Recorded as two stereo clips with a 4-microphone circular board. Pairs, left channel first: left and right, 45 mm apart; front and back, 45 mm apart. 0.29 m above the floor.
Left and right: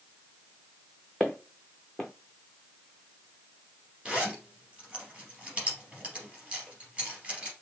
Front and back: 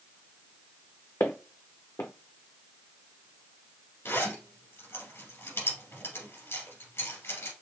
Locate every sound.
1.2 s footsteps: straight ahead, 0.9 m
4.0 s a zipper: 25° right, 3 m